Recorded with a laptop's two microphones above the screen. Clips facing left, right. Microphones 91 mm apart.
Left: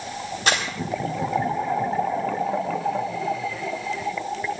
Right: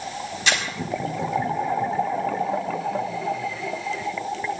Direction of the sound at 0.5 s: 45° left (ahead or behind).